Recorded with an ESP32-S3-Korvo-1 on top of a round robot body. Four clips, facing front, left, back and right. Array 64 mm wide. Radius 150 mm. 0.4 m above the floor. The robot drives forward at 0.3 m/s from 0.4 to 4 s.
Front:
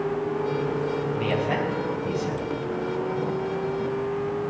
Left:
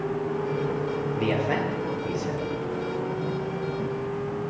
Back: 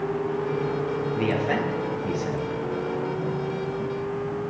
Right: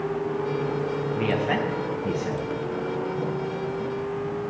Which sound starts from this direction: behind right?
A man speaking, at 1.1 s.